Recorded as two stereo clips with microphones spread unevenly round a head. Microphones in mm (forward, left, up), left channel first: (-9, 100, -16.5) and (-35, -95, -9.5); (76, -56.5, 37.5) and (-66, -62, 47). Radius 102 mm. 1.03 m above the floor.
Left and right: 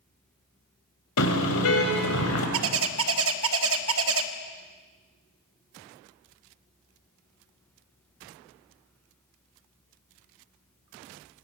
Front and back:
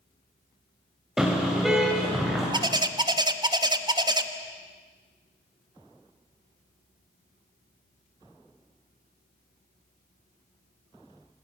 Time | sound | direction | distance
1.2 | a car horn | 95° left | 3 m
2.5 | a bird | 115° right | 1.0 m